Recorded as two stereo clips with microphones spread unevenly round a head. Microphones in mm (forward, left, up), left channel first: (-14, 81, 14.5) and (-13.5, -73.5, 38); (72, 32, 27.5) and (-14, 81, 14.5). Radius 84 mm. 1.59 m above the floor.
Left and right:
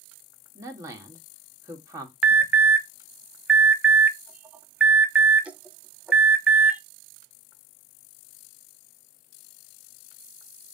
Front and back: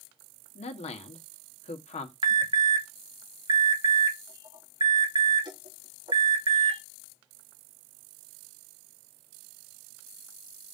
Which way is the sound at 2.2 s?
175° right.